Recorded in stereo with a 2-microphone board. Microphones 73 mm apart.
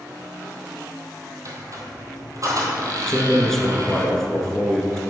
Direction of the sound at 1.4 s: 50° right (ahead or behind).